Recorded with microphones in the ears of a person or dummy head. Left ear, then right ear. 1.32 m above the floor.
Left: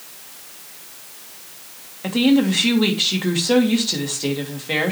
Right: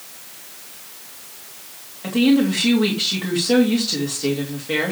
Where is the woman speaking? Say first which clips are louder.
Even; 25° left (ahead or behind), 2.5 m.